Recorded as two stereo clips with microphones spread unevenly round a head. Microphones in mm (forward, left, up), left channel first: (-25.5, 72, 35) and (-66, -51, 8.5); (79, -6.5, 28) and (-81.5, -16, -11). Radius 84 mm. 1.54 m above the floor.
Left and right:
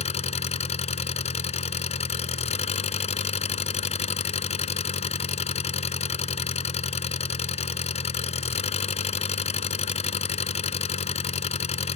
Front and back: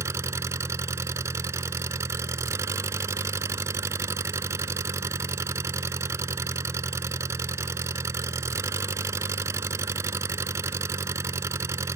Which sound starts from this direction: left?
An engine running, at 0.0 s.